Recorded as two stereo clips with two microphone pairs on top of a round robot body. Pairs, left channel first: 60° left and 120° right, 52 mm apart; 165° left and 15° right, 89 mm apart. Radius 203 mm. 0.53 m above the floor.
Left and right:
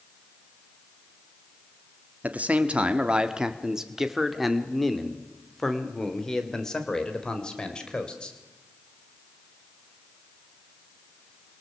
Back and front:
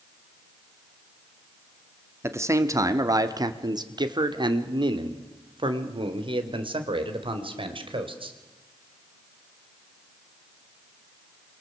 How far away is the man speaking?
About 1.8 m.